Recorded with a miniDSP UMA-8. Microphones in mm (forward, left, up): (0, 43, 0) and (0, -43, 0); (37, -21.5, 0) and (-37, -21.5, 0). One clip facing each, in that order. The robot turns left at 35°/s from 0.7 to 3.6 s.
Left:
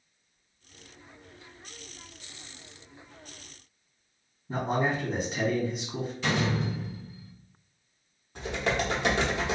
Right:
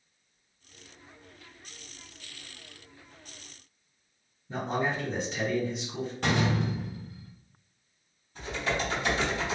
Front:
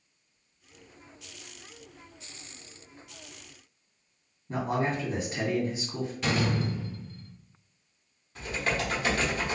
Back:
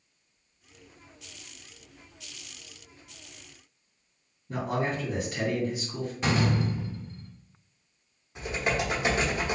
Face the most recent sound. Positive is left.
turn(degrees=110)